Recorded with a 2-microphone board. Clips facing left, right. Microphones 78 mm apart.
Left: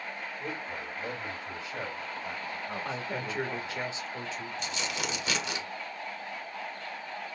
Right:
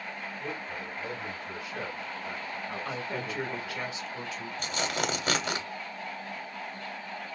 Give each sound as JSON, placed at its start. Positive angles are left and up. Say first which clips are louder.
{"t": 0.4, "sound": "a man speaking", "louder": "even", "side_deg": 15, "distance_m": 1.4}
{"t": 2.9, "sound": "a woman speaking", "louder": "even", "side_deg": 30, "distance_m": 1.6}
{"t": 4.6, "sound": "tearing paper", "louder": "right 6 dB", "side_deg": -45, "distance_m": 0.8}